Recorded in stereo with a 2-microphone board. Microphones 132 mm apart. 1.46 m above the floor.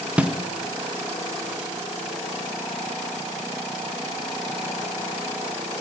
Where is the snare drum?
10° right (ahead or behind), 1.0 m.